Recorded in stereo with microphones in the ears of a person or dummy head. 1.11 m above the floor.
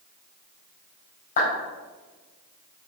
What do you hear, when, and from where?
1.4 s a clap: 45° left (ahead or behind), 4 m